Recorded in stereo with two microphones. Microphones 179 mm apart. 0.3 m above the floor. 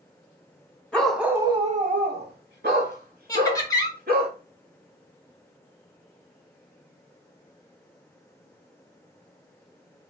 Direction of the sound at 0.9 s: 5° left (ahead or behind).